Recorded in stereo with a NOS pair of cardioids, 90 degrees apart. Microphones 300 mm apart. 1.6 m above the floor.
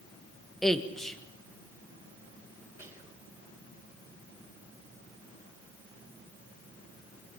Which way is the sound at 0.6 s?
Straight ahead.